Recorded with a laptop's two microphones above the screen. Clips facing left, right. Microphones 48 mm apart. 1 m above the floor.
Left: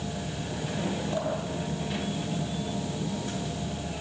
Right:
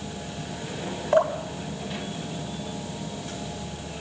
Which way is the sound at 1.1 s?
65° right (ahead or behind).